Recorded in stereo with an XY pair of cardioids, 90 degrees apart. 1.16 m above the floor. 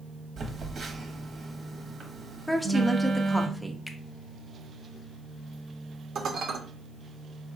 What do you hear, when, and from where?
0.4 s a phone buzzing: 55° right, 1.1 m
2.5 s a woman speaking: 5° left, 0.7 m
3.9 s a finger snap: 15° left, 1.0 m
6.2 s dishes clattering: 70° right, 1.0 m